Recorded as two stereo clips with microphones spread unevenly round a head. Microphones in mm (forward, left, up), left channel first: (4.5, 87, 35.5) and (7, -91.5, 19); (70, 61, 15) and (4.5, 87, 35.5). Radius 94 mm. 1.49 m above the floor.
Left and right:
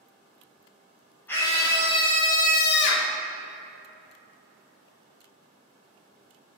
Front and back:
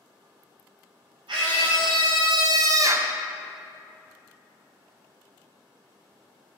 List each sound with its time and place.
1.3 s a scream: 170° left, 1.5 m; by 3.1 s 100° left, 0.8 m